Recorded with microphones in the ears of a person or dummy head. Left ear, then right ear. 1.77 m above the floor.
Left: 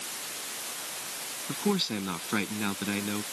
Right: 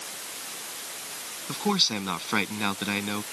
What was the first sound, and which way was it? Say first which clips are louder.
A man speaking: right 5 dB; 30° right (ahead or behind).